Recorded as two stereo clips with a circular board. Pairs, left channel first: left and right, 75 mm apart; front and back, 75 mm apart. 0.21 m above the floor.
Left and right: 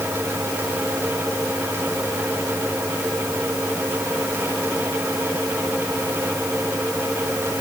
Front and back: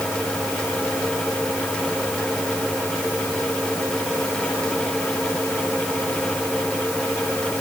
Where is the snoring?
No snoring in this recording.